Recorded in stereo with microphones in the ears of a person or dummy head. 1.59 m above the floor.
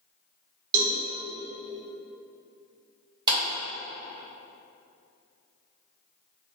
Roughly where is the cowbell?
Right.